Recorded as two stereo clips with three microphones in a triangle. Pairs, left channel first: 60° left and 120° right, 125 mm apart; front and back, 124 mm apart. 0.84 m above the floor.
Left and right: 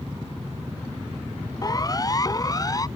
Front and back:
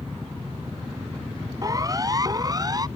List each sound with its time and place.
1.6 s a siren: 120° left